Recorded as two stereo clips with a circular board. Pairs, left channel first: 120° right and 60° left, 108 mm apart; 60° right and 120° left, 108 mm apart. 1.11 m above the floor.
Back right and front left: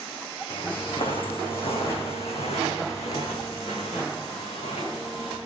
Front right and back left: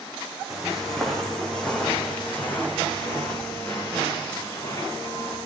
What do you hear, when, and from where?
0.5 s footsteps: 150° right, 3 m; by 5.4 s 115° right, 5 m